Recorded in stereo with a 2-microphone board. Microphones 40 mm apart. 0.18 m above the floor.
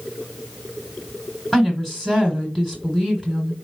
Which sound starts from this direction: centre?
A woman speaking, at 1.5 s.